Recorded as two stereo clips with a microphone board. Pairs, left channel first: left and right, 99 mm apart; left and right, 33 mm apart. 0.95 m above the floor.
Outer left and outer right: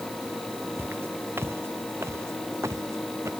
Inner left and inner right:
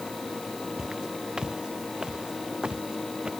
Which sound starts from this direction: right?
Footsteps, at 0.8 s.